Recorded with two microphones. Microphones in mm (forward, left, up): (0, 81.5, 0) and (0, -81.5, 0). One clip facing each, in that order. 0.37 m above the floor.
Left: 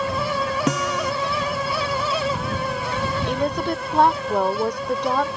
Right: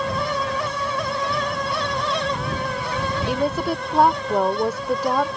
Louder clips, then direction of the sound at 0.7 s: Left 3 dB; 85° left.